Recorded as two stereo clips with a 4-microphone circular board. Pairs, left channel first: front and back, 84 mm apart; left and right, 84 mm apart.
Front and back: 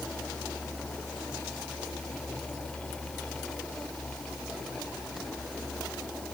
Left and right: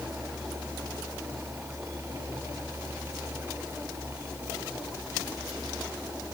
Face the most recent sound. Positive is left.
No sound to turn to.